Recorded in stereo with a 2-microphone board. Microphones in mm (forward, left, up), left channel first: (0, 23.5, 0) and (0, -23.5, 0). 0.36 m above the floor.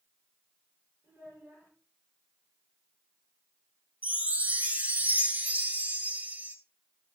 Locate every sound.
1.0 s a child speaking: 55° right (ahead or behind), 6.5 m
4.0 s a chime: 35° right (ahead or behind), 1.3 m